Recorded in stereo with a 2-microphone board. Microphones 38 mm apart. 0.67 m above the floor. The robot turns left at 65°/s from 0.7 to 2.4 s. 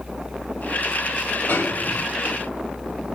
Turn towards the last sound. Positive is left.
turn(degrees=70)